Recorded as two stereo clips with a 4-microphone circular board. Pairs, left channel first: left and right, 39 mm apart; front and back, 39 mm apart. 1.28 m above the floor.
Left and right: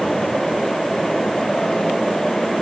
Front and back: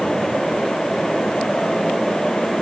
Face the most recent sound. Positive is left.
No sound to turn to.